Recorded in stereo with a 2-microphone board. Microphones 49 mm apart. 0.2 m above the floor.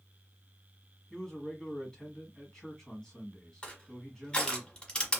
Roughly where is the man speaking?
Centre.